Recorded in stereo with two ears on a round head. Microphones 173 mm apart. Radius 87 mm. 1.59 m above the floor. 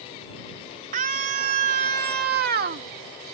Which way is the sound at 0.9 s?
45° right (ahead or behind).